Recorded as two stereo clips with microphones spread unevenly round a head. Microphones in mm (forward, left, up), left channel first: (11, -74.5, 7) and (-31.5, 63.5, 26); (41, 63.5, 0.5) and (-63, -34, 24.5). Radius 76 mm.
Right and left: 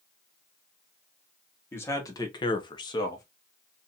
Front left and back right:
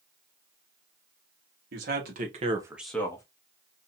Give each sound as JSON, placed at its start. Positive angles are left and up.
{"t": 1.7, "sound": "a man speaking", "azimuth_deg": -140, "distance_m": 1.3}